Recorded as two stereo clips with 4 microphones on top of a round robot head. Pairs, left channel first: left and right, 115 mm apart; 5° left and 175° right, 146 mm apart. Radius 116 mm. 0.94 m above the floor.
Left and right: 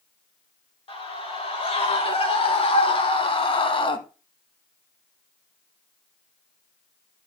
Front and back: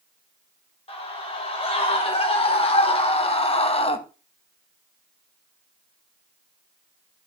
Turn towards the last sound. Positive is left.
turn(degrees=50)